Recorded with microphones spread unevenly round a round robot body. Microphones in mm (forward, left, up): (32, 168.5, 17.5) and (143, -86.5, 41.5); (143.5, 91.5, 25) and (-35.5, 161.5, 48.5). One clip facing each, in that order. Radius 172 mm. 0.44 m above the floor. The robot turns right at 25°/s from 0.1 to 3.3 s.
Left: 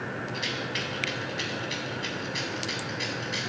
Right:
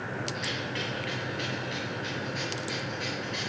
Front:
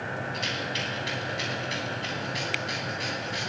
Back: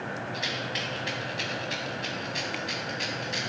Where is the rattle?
75° left, 3 m; by 3.5 s 150° left, 3 m.